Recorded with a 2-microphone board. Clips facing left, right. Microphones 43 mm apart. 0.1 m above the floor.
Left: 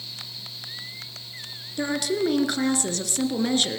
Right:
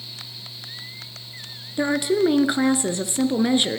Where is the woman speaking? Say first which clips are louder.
Right 5 dB; 20° right (ahead or behind), 1.5 m.